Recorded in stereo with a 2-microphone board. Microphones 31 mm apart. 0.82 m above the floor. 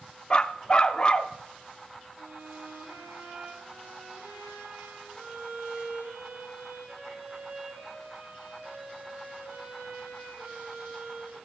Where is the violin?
75° right (ahead or behind), 7 m.